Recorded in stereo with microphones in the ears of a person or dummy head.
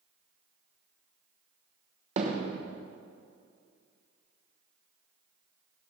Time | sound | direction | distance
2.2 | hammering | 30° right (ahead or behind) | 1.1 m